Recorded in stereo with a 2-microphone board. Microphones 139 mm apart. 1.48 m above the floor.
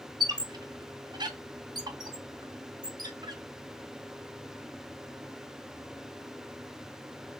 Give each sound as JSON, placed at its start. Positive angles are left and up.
{"t": 0.2, "sound": "a squeak", "side_deg": -30, "distance_m": 0.5}